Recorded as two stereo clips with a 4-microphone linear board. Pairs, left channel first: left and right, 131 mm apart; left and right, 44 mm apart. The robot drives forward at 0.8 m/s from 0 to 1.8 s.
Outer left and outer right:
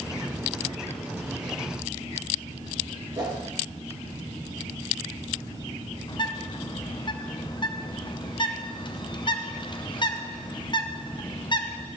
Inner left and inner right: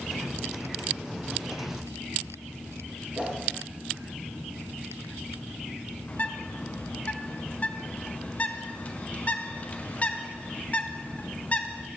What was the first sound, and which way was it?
A whoosh, 30° right (ahead or behind).